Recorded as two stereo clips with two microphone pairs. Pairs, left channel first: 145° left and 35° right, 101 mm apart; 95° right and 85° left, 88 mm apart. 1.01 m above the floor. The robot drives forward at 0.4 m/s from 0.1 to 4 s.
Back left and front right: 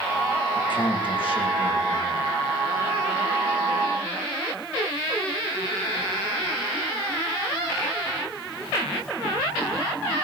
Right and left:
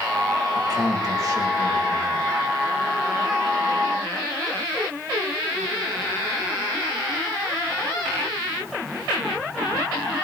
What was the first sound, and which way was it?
A man speaking, 115° left.